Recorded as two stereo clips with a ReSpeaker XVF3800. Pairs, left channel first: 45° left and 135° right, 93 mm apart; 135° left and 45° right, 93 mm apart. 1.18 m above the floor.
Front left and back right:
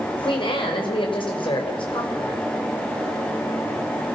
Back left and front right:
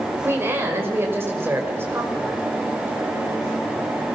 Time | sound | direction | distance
0.2 | a woman speaking | 20° left | 5.5 m